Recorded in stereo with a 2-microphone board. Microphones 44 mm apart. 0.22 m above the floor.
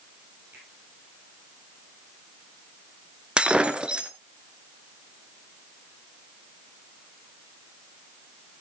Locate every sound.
0.5 s a finger snap: 45° right (ahead or behind), 9.5 m
3.4 s breaking glass: 20° right (ahead or behind), 1.0 m